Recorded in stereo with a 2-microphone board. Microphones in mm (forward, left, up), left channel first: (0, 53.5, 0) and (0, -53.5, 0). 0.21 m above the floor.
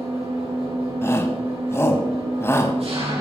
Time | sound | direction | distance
0.0 | an engine running | 65° right (ahead or behind) | 6.5 m
1.0 | a shout | 25° left (ahead or behind) | 1.1 m